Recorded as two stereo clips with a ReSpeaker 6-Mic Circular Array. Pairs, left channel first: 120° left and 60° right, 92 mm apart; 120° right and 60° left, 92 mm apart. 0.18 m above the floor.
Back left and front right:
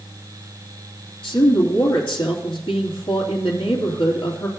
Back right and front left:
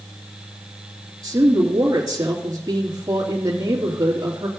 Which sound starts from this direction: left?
A woman speaking, at 1.2 s.